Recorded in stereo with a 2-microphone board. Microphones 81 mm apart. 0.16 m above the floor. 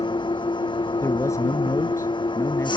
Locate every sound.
0.0 s an engine running: 70° left (ahead or behind)
1.0 s a man speaking: 40° left (ahead or behind)